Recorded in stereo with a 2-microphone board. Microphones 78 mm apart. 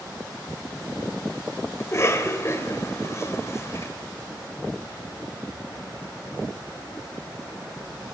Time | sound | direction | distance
1.8 | a cough | 35° left (ahead or behind) | 1.7 m